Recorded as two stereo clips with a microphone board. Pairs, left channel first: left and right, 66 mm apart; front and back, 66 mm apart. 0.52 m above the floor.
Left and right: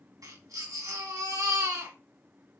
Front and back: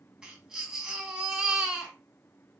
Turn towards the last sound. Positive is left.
turn(degrees=-100)